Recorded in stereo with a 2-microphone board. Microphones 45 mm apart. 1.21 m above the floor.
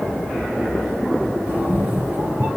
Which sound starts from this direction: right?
A cat meowing, at 1.5 s.